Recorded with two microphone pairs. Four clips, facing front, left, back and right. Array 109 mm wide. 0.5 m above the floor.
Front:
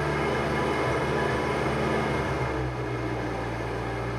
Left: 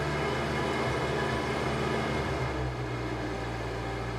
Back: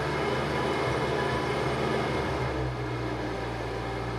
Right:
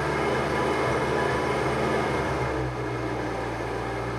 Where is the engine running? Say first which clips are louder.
Right 5 dB, front 2 dB; 75° right, 0.7 m.